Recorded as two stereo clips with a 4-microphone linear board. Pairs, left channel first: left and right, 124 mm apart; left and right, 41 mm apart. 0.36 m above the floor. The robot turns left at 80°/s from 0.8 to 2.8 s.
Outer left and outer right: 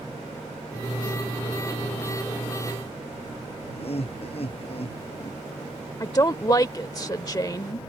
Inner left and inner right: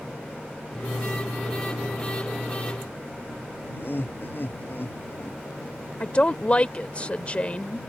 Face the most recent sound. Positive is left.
turn(degrees=30)  # may be behind; listen again after turning